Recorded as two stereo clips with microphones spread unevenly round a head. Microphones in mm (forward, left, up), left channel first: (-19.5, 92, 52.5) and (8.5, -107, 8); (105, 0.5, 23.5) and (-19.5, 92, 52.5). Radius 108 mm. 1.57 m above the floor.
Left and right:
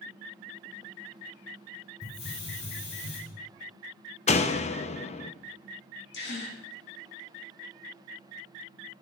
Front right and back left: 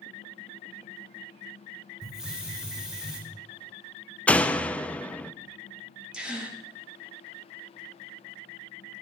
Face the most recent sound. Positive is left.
turn(degrees=60)